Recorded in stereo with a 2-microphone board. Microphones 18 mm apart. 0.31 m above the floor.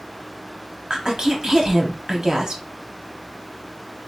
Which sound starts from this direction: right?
A woman speaking, at 0.9 s.